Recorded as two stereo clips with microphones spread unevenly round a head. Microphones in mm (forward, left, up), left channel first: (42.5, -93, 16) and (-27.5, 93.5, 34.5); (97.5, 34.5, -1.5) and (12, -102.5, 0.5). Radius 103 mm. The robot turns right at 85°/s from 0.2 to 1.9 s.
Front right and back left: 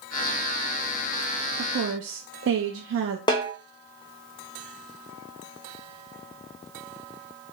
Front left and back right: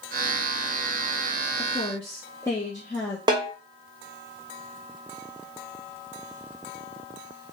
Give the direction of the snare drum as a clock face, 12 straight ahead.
4 o'clock.